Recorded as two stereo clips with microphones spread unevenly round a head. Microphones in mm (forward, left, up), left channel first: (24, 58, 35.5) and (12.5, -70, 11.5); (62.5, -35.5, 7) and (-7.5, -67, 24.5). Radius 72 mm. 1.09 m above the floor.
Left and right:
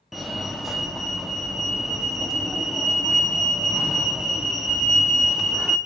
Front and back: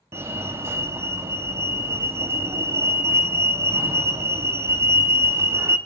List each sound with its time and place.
0.1 s a fire alarm: 145° right, 1.0 m